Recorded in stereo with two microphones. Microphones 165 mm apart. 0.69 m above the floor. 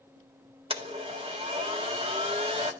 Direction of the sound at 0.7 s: 35° right (ahead or behind).